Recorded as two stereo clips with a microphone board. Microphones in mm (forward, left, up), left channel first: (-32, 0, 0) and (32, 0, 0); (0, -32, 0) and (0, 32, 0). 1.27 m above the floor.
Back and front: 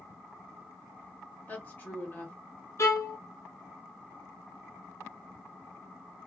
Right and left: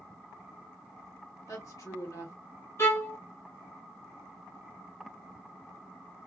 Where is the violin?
140° right, 0.8 m.